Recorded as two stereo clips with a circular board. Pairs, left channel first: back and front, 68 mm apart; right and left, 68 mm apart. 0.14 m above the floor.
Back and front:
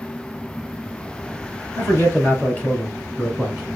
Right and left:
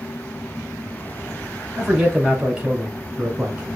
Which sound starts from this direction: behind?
A man speaking, at 1.8 s.